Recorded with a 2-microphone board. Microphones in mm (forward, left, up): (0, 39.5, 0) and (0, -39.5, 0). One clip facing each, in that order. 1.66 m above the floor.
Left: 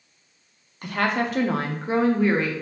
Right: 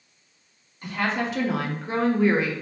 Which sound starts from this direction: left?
A woman speaking, at 0.8 s.